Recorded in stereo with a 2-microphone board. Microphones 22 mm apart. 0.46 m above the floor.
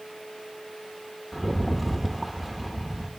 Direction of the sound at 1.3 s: 5° right (ahead or behind).